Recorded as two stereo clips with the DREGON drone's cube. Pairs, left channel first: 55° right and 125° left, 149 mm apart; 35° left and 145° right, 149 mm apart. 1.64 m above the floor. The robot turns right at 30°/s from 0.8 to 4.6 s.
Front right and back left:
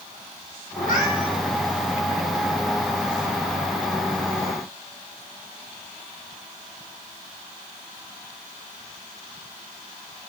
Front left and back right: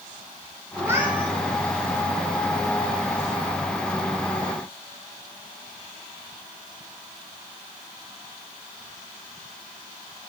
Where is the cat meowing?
75° right, 6 m; by 1.4 s 60° right, 6 m.